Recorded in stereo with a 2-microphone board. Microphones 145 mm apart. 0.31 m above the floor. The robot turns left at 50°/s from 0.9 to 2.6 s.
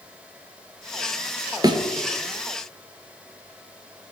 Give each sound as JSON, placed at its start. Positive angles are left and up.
{"t": 1.6, "sound": "a thud", "side_deg": -25, "distance_m": 0.8}